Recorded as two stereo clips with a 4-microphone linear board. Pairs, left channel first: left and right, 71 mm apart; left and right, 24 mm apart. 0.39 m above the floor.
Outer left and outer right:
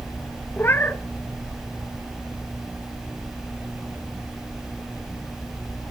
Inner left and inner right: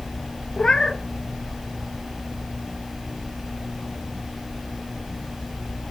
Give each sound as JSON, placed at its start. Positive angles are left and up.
{"t": 0.6, "sound": "a cat meowing", "side_deg": 30, "distance_m": 0.8}